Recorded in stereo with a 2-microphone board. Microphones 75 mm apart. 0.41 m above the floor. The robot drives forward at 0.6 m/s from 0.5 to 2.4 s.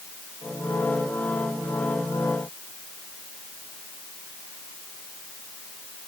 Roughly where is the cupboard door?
No cupboard door in this recording.